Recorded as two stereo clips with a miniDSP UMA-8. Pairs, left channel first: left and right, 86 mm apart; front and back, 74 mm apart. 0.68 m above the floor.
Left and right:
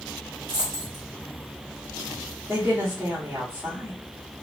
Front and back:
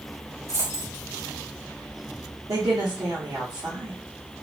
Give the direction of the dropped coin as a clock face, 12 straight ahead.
4 o'clock.